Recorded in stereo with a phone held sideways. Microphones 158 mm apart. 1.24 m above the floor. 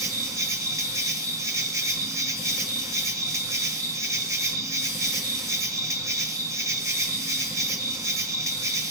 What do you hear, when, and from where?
0.0 s an insect: 20° right (ahead or behind), 1.2 m